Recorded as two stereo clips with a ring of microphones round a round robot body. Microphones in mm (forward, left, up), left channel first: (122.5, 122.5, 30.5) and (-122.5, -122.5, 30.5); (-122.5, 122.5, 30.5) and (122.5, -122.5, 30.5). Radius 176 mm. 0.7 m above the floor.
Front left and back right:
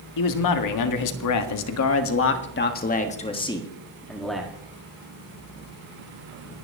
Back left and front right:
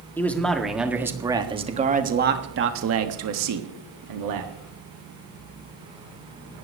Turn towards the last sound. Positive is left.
turn(degrees=-50)